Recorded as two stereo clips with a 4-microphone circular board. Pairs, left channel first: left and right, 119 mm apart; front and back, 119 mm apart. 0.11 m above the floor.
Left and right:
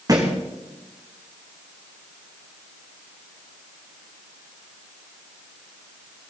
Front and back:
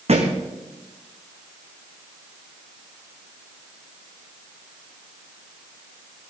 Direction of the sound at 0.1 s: 150° right.